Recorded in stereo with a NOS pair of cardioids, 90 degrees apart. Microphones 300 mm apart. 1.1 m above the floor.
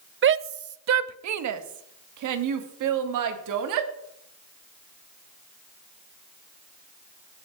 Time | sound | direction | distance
0.2 | a shout | 40° right | 0.8 m